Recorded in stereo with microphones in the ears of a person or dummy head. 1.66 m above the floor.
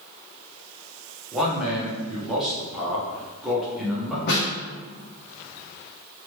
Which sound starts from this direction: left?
A snare drum, at 4.3 s.